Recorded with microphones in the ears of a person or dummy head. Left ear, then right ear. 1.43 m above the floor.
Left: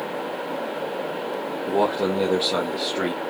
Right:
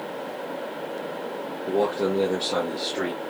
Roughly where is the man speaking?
Centre.